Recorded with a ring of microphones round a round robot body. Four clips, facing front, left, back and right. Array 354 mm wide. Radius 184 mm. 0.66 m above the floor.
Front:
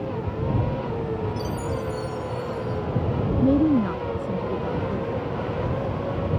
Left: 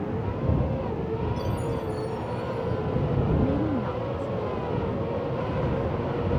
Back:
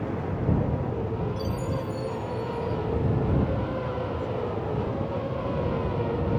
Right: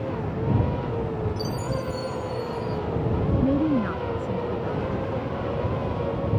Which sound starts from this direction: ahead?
A woman speaking, at 3.4 s.